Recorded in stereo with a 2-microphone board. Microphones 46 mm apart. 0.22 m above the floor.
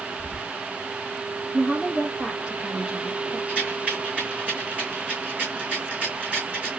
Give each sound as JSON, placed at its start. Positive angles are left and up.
{"t": 0.2, "sound": "whispering", "side_deg": -20, "distance_m": 1.4}
{"t": 1.5, "sound": "a woman speaking", "side_deg": -20, "distance_m": 2.5}
{"t": 3.5, "sound": "a rattle", "side_deg": -35, "distance_m": 4.0}